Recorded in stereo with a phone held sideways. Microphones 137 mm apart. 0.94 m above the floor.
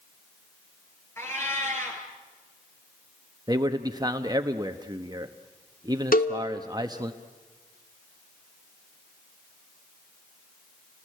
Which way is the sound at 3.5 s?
30° right (ahead or behind).